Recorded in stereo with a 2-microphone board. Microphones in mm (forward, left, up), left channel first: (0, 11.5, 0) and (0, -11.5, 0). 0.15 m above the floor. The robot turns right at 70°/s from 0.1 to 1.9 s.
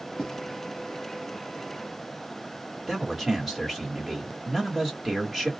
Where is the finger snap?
I don't hear a finger snap.